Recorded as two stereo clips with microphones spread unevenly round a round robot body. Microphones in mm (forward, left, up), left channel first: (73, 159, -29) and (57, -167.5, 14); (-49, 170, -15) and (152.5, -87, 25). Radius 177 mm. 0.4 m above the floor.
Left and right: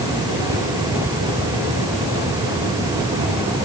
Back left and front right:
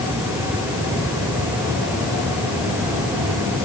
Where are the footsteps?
No footsteps in this recording.